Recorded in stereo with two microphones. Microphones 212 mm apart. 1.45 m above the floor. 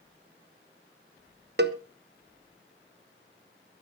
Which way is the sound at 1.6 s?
55° right (ahead or behind).